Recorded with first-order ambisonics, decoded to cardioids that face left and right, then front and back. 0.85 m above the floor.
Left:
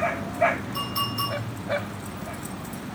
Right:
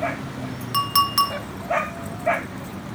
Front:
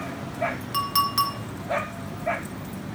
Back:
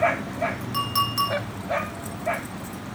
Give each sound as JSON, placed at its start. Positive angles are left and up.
{"t": 0.7, "sound": "a clink", "azimuth_deg": -80, "distance_m": 0.6}